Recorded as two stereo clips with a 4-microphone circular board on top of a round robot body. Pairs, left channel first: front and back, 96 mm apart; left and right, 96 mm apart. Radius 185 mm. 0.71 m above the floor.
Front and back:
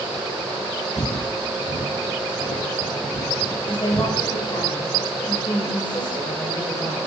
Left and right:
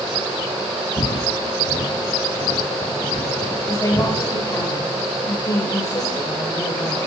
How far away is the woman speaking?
About 5 m.